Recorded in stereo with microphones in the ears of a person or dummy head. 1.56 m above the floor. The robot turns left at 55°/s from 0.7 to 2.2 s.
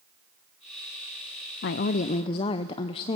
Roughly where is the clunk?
No clunk in this recording.